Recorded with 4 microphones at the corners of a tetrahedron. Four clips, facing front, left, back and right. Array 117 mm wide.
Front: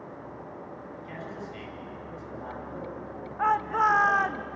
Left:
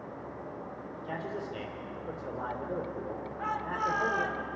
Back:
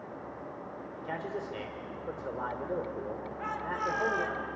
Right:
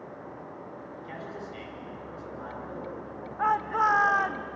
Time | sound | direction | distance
1.0 | a man speaking | 155° left | 5.5 m
3.4 | a shout | 40° right | 1.5 m